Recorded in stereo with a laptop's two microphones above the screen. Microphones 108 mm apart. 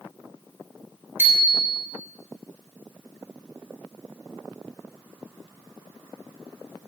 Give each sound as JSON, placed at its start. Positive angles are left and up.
{"t": 1.2, "sound": "a bicycle bell", "side_deg": -20, "distance_m": 4.5}